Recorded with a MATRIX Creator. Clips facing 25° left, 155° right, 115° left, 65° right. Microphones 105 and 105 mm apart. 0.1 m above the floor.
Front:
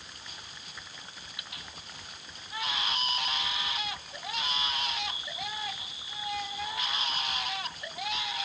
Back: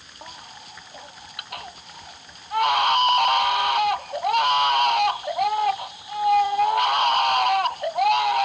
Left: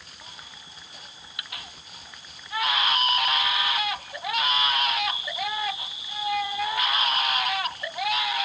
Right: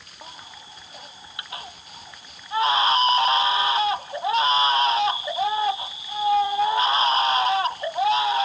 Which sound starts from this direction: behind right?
A baby crying, at 0.2 s.